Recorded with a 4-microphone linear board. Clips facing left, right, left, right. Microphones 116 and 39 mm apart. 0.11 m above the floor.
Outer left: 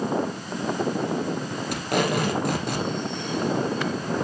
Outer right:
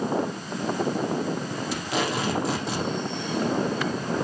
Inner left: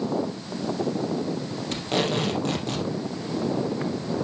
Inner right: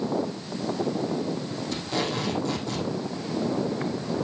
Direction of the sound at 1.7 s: 60° left (ahead or behind).